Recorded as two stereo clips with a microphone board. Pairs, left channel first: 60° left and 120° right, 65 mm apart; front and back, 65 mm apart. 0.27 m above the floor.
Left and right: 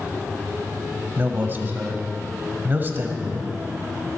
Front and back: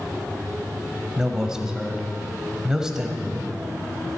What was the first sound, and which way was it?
A man speaking, 105° right.